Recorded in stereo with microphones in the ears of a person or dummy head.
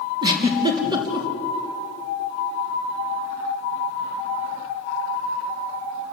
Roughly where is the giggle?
Right.